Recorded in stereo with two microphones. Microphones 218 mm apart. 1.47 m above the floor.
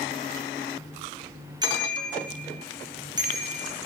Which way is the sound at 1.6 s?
20° right (ahead or behind).